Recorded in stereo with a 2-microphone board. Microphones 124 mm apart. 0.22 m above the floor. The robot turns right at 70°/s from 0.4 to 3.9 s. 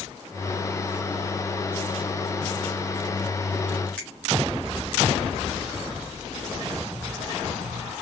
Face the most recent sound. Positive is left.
turn(degrees=10)  # may be behind; listen again after turning